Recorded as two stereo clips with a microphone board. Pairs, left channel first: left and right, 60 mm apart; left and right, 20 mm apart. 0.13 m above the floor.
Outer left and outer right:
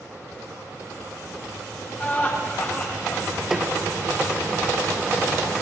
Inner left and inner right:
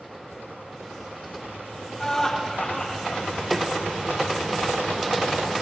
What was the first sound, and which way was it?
Laughter, 30° left (ahead or behind).